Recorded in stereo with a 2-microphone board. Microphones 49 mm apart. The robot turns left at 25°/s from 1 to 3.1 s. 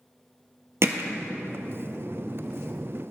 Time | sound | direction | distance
0.8 | hammering | 60° right (ahead or behind) | 0.9 m